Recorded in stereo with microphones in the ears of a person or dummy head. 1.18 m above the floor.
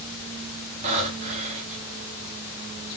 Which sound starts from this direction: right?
Breathing, at 0.8 s.